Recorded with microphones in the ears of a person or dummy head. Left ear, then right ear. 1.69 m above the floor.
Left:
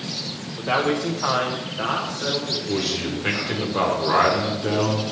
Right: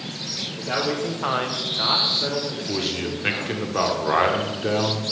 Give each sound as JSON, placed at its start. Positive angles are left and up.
{"t": 0.6, "sound": "a man speaking", "side_deg": 20, "distance_m": 0.6}
{"t": 2.7, "sound": "a man speaking", "side_deg": -15, "distance_m": 0.9}